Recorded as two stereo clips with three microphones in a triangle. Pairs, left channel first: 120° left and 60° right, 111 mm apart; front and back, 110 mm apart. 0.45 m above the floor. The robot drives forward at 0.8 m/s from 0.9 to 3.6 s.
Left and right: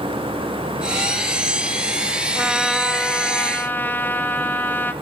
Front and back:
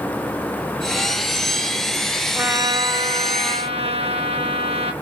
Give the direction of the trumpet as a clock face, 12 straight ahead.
4 o'clock.